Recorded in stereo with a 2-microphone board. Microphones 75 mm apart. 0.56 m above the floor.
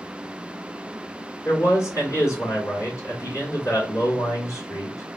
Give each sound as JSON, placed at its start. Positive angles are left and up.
{"t": 1.4, "sound": "a man speaking", "side_deg": 45, "distance_m": 1.8}